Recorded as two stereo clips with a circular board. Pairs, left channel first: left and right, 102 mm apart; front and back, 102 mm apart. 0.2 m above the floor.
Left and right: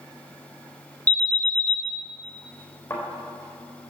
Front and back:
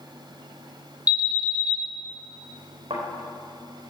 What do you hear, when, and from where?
1.1 s an alarm: 130° left, 1.9 m
2.9 s a thud: 155° left, 4 m